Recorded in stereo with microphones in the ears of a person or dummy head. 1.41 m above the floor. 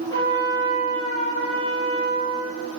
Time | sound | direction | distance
0.1 | a trumpet | 30° left (ahead or behind) | 1.4 m